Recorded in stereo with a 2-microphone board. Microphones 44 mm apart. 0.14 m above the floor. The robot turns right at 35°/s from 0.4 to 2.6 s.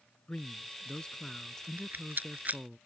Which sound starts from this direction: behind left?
A man speaking, at 0.3 s.